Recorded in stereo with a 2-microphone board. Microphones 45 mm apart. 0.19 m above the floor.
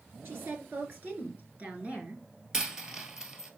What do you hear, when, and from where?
0.2 s a woman speaking: 60° right (ahead or behind), 3.5 m; by 2.2 s 30° right (ahead or behind), 3 m
2.5 s a dropped coin: 15° right (ahead or behind), 1.4 m